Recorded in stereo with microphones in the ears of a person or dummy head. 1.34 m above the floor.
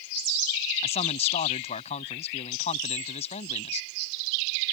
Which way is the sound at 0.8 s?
40° left (ahead or behind).